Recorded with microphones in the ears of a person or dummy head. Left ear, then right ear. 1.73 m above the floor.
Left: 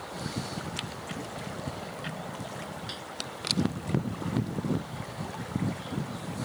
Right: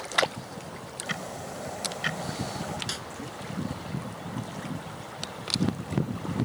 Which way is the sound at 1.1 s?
45° right (ahead or behind).